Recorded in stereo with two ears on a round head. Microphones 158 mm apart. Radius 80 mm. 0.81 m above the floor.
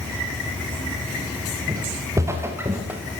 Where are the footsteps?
20° right (ahead or behind), 6.5 m; by 3.0 s 10° right (ahead or behind), 5.5 m.